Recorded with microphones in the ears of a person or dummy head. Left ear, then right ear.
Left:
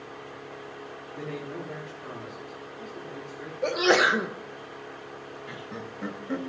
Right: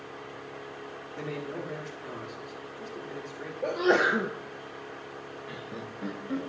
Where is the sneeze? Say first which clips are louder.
Left 3 dB; 35° left (ahead or behind), 1.5 m.